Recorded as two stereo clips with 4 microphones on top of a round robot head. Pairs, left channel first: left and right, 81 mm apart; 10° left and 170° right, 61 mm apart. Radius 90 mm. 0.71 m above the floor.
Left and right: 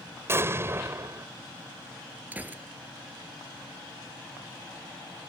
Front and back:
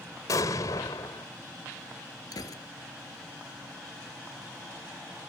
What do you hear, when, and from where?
0.3 s an explosion: 30° right
2.3 s a gunshot: 20° right